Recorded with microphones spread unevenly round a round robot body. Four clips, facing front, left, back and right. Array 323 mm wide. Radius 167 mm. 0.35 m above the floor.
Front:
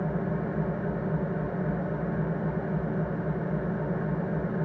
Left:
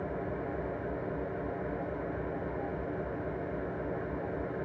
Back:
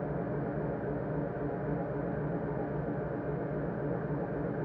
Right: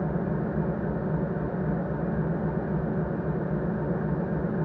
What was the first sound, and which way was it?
An engine running, 60° right.